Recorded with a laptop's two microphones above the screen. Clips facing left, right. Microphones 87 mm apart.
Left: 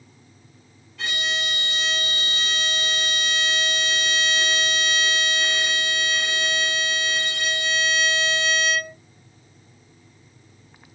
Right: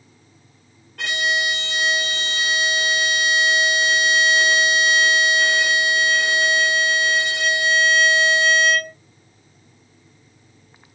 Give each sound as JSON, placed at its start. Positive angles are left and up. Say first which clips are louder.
{"t": 1.0, "sound": "a violin", "louder": "right 6 dB", "side_deg": -60, "distance_m": 1.3}